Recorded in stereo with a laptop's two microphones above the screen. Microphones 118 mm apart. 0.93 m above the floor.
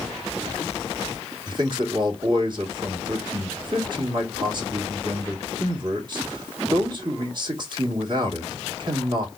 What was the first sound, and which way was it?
A man speaking, 40° right (ahead or behind).